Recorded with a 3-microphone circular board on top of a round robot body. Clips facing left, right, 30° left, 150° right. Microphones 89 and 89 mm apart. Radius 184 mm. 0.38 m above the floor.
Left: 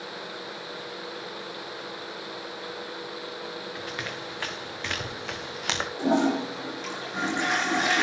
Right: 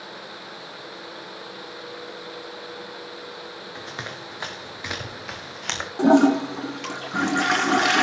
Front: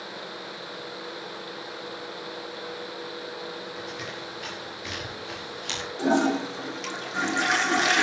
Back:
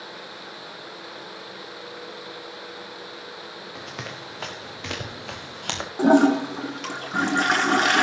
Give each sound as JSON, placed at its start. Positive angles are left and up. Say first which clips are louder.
{"t": 3.8, "sound": "running footsteps", "louder": "left 1 dB, front 1 dB", "azimuth_deg": -155, "distance_m": 4.0}
{"t": 6.0, "sound": "a toilet flushing", "louder": "right 8 dB, back 6 dB", "azimuth_deg": -110, "distance_m": 3.0}